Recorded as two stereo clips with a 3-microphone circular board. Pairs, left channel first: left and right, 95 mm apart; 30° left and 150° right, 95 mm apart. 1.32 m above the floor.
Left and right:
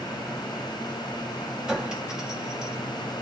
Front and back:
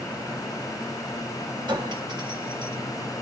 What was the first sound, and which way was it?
A clink, 170° right.